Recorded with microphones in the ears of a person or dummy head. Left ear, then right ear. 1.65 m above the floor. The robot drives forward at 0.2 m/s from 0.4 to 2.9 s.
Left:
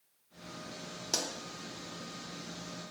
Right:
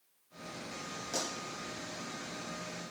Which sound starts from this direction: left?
A pop, at 1.1 s.